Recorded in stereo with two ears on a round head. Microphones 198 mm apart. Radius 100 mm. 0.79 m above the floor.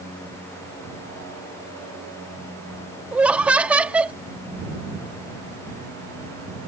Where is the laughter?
5° right (ahead or behind).